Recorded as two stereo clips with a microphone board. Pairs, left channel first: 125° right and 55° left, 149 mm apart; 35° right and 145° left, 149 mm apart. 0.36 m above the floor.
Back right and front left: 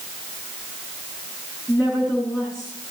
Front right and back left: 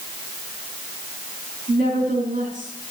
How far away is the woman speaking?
About 5 m.